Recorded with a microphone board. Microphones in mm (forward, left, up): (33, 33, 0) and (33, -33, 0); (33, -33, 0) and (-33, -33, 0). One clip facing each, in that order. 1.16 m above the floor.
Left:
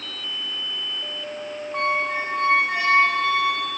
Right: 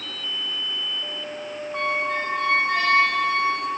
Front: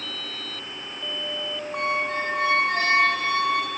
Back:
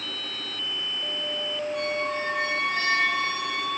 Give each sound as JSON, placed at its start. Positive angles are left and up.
{"t": 1.7, "sound": "a squeak", "azimuth_deg": 10, "distance_m": 1.3}